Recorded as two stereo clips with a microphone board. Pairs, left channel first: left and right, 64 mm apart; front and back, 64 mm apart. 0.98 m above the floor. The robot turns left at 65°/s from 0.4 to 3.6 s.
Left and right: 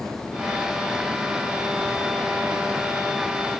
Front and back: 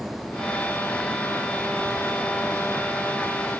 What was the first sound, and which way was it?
Only background noise.